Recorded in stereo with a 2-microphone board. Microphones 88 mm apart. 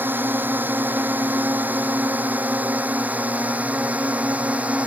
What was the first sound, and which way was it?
A drone, 25° right (ahead or behind).